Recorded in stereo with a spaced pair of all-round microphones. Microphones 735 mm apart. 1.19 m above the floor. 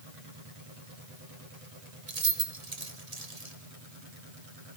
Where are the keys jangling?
55° right (ahead or behind), 1.7 m.